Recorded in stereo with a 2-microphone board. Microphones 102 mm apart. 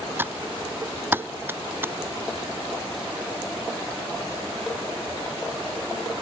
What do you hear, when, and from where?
0.2 s typing on a keyboard: 20° right (ahead or behind)